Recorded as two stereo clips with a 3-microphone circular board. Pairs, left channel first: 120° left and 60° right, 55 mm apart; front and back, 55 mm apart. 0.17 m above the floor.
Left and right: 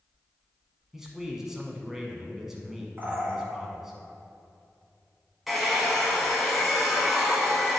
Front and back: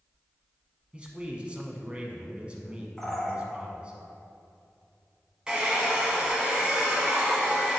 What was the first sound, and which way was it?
A man speaking, 135° right.